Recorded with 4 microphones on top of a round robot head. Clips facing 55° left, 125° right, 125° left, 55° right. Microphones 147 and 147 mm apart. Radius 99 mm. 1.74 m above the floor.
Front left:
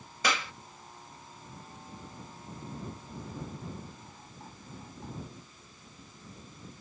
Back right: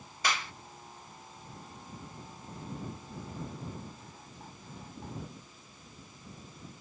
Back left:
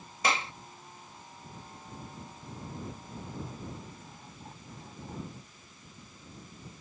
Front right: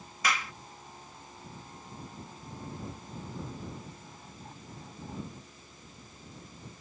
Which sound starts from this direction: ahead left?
A clap, at 0.2 s.